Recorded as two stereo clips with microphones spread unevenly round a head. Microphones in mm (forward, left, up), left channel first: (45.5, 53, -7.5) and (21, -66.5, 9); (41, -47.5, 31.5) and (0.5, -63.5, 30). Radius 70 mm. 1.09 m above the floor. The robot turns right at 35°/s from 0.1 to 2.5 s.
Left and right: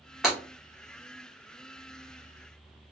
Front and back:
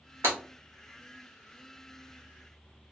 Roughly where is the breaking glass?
Behind.